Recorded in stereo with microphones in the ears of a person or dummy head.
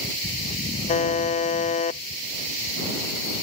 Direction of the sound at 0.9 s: 30° left (ahead or behind).